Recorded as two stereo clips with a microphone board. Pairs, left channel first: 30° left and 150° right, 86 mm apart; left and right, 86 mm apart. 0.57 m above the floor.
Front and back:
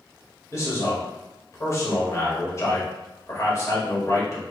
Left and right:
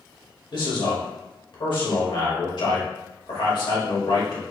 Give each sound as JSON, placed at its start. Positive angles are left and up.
{"t": 0.5, "sound": "a man speaking", "azimuth_deg": 80, "distance_m": 2.0}